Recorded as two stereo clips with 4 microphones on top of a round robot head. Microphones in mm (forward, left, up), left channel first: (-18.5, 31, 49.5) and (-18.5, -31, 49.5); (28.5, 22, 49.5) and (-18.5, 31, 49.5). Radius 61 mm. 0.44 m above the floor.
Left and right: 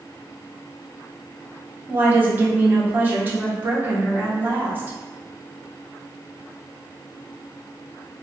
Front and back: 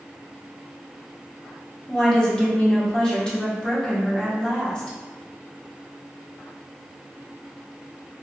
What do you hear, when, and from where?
1.9 s a woman speaking: 70° right, 0.9 m